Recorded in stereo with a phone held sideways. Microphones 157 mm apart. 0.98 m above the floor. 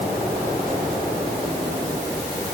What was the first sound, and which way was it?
Only background noise.